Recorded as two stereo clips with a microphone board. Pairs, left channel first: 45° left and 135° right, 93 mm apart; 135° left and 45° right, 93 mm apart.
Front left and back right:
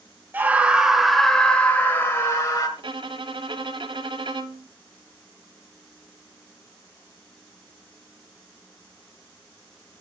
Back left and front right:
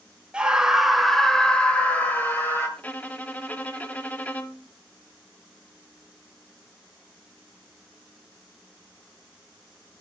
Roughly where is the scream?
Right.